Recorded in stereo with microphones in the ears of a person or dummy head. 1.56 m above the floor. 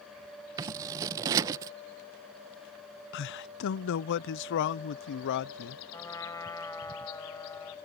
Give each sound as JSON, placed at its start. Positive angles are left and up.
{"t": 0.6, "sound": "scissors", "side_deg": -25}
{"t": 3.1, "sound": "a man speaking", "side_deg": 65}
{"t": 5.9, "sound": "a trumpet", "side_deg": 15}